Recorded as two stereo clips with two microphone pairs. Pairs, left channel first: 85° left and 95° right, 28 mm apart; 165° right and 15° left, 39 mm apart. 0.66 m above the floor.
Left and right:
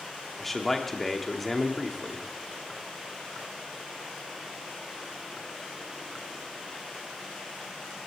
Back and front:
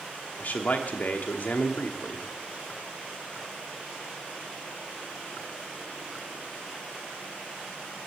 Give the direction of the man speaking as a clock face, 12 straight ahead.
6 o'clock.